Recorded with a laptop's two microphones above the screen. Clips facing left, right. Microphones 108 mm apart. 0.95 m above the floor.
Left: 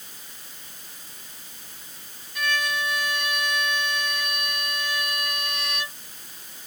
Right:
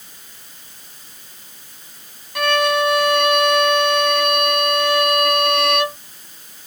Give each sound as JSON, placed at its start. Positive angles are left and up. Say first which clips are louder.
{"t": 2.4, "sound": "a violin", "louder": "right 10 dB", "side_deg": -70}